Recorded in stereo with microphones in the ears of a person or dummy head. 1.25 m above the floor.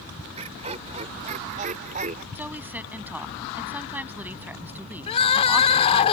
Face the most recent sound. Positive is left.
turn(degrees=35)  # may be behind; listen again after turning